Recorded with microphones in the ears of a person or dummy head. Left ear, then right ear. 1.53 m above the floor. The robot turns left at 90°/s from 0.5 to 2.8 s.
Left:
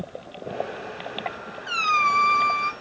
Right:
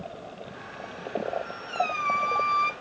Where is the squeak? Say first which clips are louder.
Left 7 dB; 85° left, 1.2 m; by 2.7 s 10° right, 1.2 m.